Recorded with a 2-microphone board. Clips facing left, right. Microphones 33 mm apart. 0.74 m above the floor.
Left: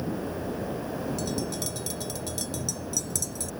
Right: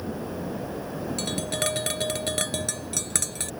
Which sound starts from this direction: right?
Tapping, at 1.2 s.